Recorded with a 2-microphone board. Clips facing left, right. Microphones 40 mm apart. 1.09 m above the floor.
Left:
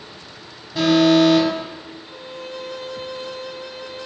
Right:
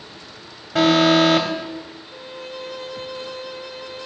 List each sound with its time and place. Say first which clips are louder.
0.8 s an alarm: even; 75° right (ahead or behind), 5.5 m
2.0 s a violin: left 1 dB; 5° right (ahead or behind), 1.0 m